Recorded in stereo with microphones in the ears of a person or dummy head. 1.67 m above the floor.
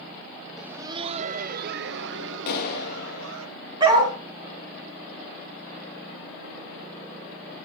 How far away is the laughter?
About 0.5 m.